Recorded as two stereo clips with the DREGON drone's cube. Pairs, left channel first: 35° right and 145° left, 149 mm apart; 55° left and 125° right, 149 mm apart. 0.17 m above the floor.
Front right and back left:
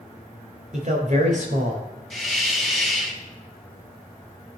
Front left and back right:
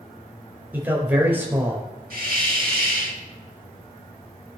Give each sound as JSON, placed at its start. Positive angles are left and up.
{"t": 0.7, "sound": "a man speaking", "azimuth_deg": 160, "distance_m": 3.5}
{"t": 2.1, "sound": "a hiss", "azimuth_deg": -120, "distance_m": 3.0}